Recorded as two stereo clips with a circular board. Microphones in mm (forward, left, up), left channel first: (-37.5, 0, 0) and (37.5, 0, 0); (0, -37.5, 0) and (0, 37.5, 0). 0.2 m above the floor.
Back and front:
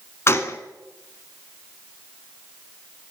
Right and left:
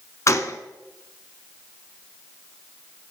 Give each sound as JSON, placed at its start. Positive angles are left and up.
{"t": 0.3, "sound": "a gunshot", "azimuth_deg": -130, "distance_m": 0.7}